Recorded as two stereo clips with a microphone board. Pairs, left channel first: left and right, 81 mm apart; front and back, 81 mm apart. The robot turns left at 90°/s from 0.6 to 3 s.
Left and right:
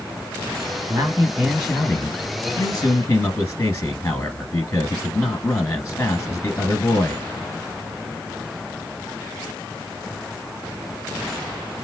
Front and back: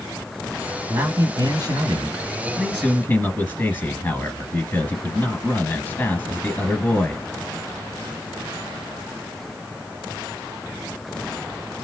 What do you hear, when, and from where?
0.9 s a man speaking: 130° right, 1.6 m; by 7.2 s 45° left, 1.6 m